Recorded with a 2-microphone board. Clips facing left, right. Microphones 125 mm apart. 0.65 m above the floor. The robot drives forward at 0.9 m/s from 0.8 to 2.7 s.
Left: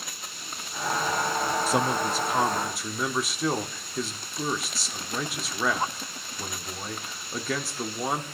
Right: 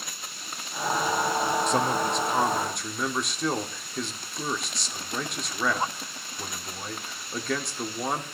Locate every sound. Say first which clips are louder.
1.7 s a man speaking: even; 5° left (ahead or behind), 0.6 m; by 8.2 s centre (ahead or behind), 1.3 m